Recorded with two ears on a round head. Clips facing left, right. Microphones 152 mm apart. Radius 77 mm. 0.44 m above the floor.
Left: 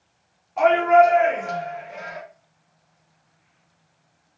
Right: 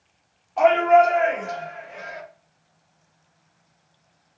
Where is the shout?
Centre (ahead or behind), 1.3 m; by 2.2 s 55° left (ahead or behind), 1.9 m.